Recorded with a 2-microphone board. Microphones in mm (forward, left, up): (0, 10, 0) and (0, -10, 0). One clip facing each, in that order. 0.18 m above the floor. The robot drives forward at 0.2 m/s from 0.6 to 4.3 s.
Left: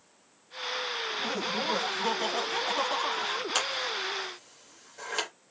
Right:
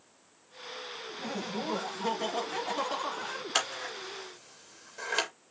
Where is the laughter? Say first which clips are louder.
Left 2 dB; 15° left (ahead or behind), 1.2 m.